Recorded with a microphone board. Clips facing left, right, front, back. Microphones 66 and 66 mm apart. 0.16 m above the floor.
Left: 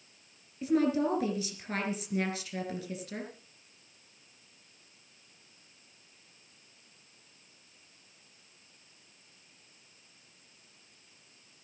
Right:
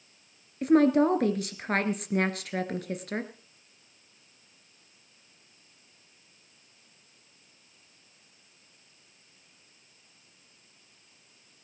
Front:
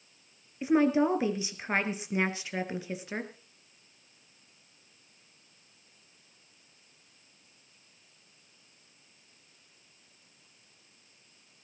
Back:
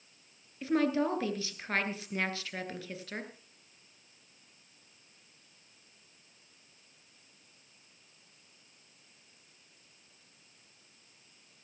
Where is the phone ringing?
I don't hear a phone ringing.